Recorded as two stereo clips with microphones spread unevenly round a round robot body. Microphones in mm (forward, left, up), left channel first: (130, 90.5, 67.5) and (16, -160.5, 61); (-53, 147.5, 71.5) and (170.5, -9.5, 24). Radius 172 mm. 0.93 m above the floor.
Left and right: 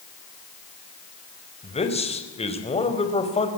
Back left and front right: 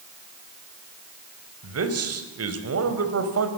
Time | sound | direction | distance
1.6 | a man speaking | 5° right | 4.5 m